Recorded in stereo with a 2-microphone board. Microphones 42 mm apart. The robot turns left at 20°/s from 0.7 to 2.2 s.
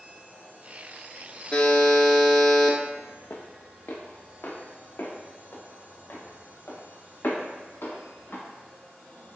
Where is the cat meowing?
I don't hear a cat meowing.